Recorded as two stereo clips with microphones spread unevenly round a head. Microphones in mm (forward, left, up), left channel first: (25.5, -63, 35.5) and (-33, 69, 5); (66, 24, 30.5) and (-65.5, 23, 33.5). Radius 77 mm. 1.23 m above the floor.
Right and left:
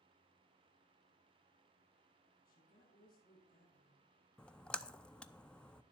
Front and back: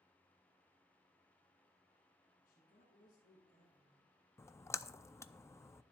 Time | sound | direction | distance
2.4 | a woman speaking | 35° right | 7.5 m
4.4 | a splash | 35° left | 0.5 m